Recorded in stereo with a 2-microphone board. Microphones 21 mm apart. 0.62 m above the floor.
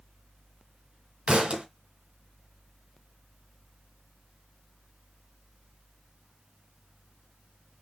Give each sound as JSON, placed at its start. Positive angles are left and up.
{"t": 1.3, "sound": "a thud", "side_deg": -85, "distance_m": 1.7}